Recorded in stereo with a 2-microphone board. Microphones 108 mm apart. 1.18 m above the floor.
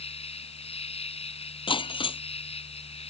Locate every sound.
0.0 s an insect: 65° left (ahead or behind)
1.7 s breaking glass: 50° left (ahead or behind)